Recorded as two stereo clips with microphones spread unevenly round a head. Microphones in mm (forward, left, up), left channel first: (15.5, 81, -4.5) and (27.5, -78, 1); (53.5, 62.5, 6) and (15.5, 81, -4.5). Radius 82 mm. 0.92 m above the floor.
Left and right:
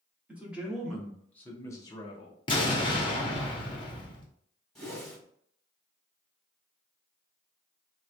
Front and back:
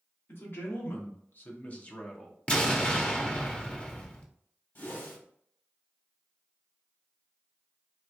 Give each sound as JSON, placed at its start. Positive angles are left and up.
{"t": 0.3, "sound": "a man speaking", "azimuth_deg": -5, "distance_m": 1.7}
{"t": 2.5, "sound": "an explosion", "azimuth_deg": 35, "distance_m": 1.1}
{"t": 4.8, "sound": "a whoosh", "azimuth_deg": 10, "distance_m": 2.0}